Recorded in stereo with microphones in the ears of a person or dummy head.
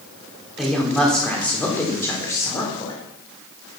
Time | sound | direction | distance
0.6 | a woman speaking | 5° right (ahead or behind) | 3.5 m